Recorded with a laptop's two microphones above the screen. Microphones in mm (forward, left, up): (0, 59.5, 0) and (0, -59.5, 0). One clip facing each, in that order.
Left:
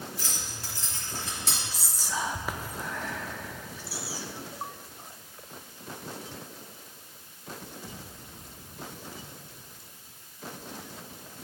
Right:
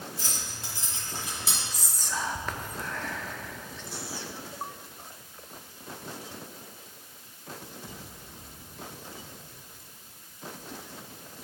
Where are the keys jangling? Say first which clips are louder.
Even; 30° right (ahead or behind), 2 m; by 1.6 s 5° right (ahead or behind), 1.6 m.